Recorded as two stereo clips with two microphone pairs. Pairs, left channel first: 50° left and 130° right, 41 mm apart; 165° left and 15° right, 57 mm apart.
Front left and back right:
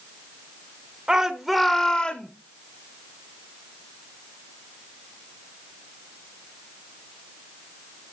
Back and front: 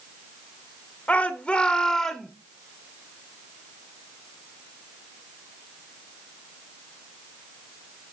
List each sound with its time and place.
1.1 s a shout: straight behind, 0.8 m; by 2.3 s 80° left, 0.9 m